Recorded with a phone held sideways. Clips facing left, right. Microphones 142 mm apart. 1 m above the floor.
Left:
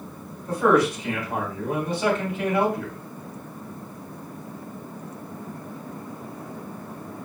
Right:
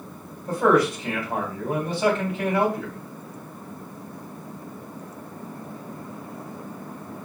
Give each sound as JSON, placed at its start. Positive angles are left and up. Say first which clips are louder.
{"t": 0.5, "sound": "a man speaking", "louder": "even", "side_deg": -35, "distance_m": 3.0}